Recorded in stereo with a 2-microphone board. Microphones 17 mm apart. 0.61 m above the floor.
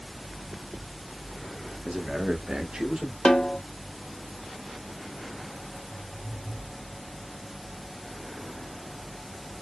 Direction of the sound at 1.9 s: 35° right (ahead or behind).